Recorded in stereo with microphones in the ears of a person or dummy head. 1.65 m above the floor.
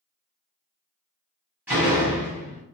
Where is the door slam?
5° right (ahead or behind), 1.0 m.